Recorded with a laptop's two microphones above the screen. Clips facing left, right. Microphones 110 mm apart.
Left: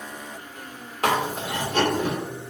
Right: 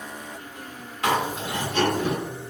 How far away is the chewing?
About 1.6 m.